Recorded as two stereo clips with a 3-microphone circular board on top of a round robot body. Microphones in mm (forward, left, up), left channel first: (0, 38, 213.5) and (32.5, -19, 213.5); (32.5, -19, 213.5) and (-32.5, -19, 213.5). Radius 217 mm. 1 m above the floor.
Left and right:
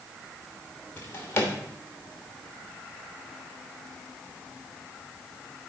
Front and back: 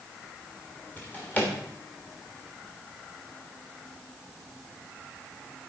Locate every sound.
1.0 s a drawer: 65° left, 1.3 m